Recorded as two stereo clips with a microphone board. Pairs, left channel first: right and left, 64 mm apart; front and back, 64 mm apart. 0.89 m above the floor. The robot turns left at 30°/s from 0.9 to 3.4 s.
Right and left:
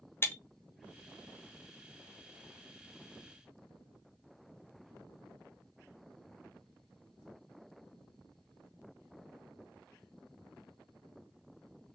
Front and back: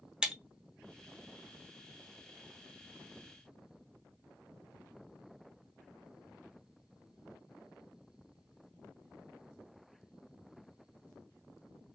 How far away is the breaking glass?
About 0.6 m.